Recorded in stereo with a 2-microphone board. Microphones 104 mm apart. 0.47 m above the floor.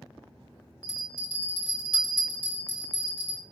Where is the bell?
60° right (ahead or behind), 1.9 m.